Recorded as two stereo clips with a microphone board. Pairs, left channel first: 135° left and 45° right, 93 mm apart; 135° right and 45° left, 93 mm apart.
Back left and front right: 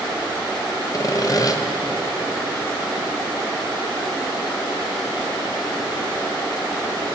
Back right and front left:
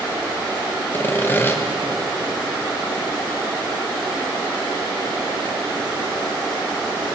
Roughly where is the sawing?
Behind.